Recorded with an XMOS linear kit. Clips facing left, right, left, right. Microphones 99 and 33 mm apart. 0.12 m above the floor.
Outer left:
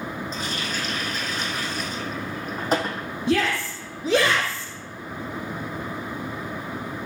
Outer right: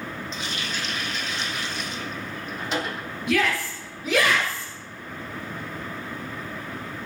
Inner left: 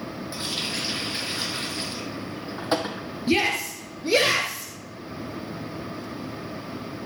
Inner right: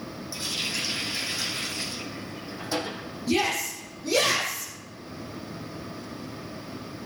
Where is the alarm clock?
No alarm clock in this recording.